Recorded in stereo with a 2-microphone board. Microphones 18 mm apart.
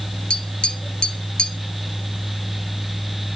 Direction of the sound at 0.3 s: 50° left (ahead or behind).